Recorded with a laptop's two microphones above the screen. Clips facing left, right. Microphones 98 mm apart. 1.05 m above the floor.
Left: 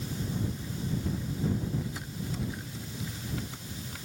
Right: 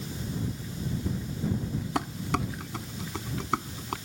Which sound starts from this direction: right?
Dishes clattering, at 1.9 s.